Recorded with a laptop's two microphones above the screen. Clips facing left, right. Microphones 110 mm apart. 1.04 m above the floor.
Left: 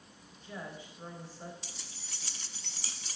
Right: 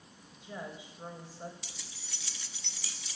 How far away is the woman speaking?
About 5 m.